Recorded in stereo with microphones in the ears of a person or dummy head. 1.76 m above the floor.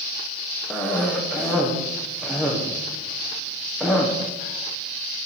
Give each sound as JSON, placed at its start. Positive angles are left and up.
{"t": 0.7, "sound": "a cough", "side_deg": 0, "distance_m": 1.0}